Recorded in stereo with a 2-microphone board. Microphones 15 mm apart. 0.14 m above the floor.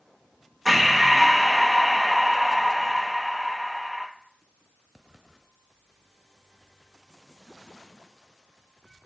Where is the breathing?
5° right (ahead or behind), 0.7 m.